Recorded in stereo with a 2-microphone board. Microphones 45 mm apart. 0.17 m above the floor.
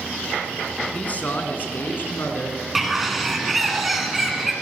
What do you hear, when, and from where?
0.9 s a man speaking: 35° left (ahead or behind), 1.6 m; by 2.6 s 55° left (ahead or behind), 2.5 m
2.8 s a bird: centre (ahead or behind), 1.6 m